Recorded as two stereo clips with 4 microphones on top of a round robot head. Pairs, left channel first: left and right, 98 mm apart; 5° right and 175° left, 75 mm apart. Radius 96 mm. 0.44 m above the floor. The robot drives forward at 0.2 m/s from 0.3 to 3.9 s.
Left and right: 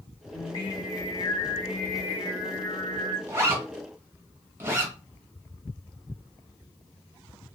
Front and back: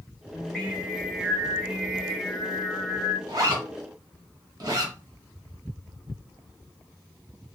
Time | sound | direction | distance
0.3 | singing | 70° left | 1.3 m
3.3 | a zipper | 150° right | 1.0 m